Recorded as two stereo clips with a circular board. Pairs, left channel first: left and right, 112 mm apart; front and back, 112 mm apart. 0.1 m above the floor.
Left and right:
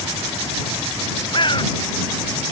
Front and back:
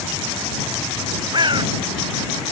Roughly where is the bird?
Behind left.